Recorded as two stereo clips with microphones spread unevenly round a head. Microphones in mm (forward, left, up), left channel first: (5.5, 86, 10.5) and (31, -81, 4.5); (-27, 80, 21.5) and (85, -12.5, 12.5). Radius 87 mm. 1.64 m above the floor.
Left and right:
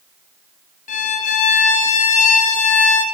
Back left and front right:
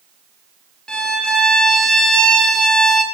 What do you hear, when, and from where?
0.9 s a violin: 60° left, 0.7 m